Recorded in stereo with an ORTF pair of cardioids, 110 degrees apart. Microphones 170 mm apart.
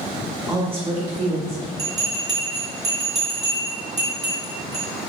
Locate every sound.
0.5 s a woman speaking: 20° right, 1.4 m; by 1.7 s 70° right, 2.5 m
1.8 s a bell: 45° right, 1.7 m